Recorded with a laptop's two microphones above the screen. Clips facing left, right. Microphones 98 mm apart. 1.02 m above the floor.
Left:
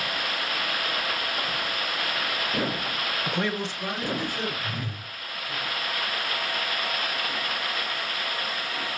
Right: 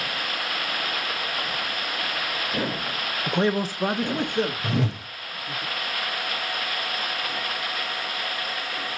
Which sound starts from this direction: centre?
A man speaking, at 3.3 s.